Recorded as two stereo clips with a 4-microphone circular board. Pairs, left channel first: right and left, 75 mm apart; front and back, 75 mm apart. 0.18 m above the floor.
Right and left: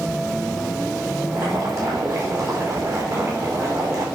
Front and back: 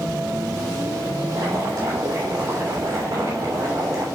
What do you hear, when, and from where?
1.3 s boiling: 135° left, 3 m